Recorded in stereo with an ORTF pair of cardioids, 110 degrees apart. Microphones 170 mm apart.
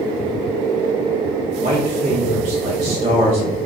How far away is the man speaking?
About 0.9 m.